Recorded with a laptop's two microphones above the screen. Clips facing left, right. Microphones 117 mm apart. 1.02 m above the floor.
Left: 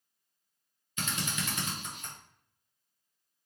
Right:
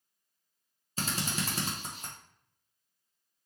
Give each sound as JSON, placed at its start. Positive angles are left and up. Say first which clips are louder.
{"t": 1.0, "sound": "a drill", "louder": "right 2 dB", "side_deg": -35, "distance_m": 0.9}